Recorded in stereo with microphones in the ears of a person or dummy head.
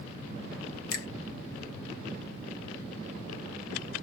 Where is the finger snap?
60° left (ahead or behind), 1.3 m.